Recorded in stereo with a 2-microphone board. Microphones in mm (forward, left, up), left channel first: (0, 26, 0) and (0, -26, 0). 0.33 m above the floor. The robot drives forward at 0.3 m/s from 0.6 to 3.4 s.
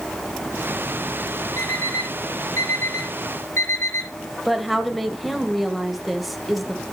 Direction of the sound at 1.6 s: 85° left.